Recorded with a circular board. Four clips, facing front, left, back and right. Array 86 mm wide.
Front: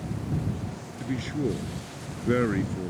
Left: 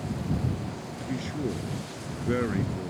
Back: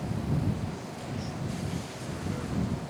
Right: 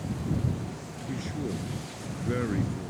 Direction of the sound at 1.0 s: 15° left.